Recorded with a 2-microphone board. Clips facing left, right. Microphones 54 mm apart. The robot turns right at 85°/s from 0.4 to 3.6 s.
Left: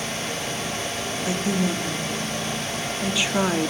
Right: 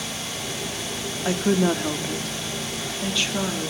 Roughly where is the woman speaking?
Behind right.